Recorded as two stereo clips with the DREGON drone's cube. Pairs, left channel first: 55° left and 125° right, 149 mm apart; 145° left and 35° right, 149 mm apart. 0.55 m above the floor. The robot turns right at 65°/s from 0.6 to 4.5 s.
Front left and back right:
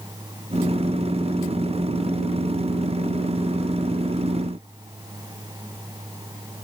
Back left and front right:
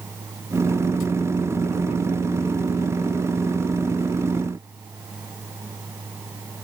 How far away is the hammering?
No hammering in this recording.